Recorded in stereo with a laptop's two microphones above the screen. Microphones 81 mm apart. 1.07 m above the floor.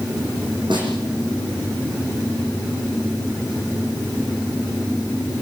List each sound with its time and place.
0.7 s a snare drum: 70° right (ahead or behind), 8.5 m